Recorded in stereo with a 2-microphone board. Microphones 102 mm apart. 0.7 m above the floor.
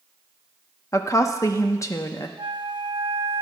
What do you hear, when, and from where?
0.9 s a woman speaking: 30° left (ahead or behind), 0.7 m
2.4 s a flute: 50° right (ahead or behind), 1.0 m